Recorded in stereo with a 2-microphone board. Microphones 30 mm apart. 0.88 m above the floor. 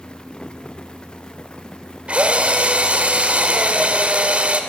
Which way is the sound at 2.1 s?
45° right (ahead or behind).